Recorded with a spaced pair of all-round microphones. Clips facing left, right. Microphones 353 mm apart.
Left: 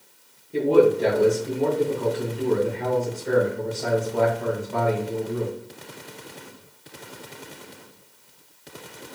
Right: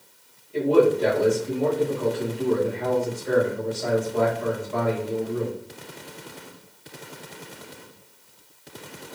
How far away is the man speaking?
About 2.5 m.